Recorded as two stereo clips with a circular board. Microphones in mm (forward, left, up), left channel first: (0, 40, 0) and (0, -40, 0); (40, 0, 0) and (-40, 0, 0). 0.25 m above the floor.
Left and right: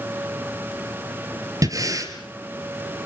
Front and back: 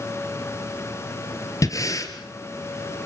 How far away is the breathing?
About 3 m.